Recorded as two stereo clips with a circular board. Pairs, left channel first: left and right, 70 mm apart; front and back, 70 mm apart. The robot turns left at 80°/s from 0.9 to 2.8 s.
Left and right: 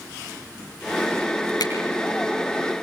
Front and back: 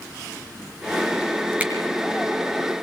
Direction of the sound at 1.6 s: 110° left.